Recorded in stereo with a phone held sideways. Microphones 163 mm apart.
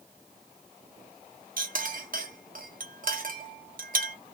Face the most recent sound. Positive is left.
turn(degrees=-60)  # may be behind; listen again after turning